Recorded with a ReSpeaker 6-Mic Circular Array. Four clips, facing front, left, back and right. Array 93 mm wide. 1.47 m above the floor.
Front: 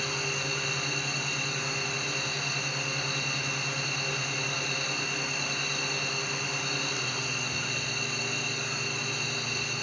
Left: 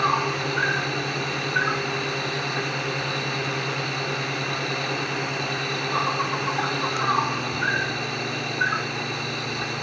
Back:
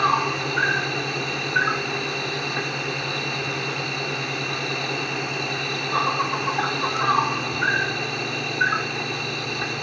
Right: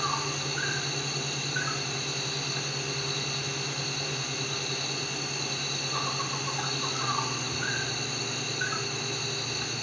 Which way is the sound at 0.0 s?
155° left.